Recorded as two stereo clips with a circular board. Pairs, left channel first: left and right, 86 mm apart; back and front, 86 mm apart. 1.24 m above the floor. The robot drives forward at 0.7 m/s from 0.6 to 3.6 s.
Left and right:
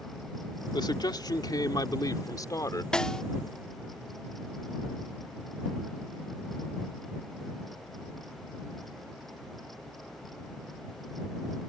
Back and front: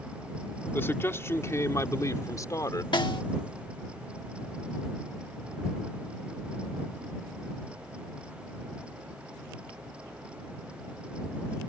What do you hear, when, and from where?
0.7 s a man speaking: 115° left; by 2.8 s 135° left
2.9 s a snare drum: 170° left